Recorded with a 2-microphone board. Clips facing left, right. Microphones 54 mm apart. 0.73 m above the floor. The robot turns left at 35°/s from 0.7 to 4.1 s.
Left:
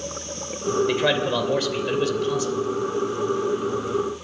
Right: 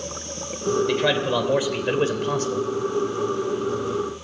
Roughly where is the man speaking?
Ahead.